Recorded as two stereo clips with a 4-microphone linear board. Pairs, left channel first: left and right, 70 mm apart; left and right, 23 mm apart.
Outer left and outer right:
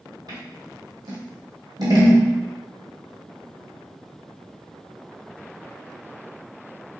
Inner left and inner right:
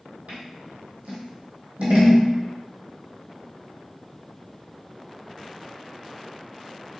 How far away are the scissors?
About 1.6 m.